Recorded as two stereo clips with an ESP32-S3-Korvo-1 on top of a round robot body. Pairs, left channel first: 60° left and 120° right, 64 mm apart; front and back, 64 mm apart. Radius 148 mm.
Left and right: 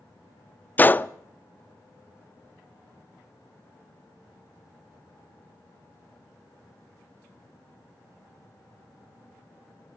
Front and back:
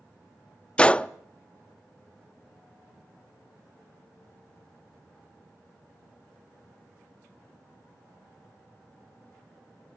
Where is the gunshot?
50° left, 0.6 m.